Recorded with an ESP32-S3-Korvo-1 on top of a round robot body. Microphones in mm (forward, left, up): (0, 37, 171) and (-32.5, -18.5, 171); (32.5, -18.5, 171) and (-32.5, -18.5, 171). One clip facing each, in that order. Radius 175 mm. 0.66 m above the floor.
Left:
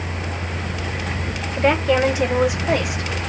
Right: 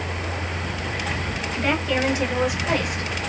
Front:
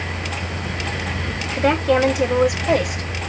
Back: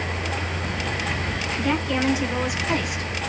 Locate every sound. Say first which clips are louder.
1.6 s a woman speaking: left 6 dB, front 8 dB; 5° left, 3.5 m; by 3.1 s 10° right, 4 m